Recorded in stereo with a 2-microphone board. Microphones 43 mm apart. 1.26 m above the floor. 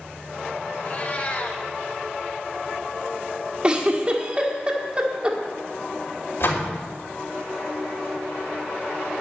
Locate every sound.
0.8 s a cat meowing: 40° left (ahead or behind), 1.7 m
3.6 s a giggle: 20° right (ahead or behind), 1.7 m
6.4 s a door slam: 70° left (ahead or behind), 3 m